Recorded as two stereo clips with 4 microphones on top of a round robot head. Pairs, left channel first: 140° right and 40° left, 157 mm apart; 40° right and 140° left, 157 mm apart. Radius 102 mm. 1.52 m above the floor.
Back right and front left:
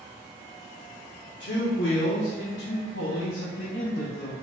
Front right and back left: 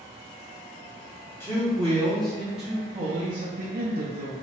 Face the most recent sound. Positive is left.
turn(degrees=140)